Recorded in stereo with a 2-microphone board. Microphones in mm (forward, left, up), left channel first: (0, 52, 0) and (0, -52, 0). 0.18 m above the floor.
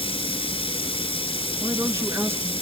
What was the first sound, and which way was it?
Running water, 65° left (ahead or behind).